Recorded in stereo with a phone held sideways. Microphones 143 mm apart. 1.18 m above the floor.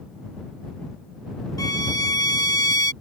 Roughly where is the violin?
Left.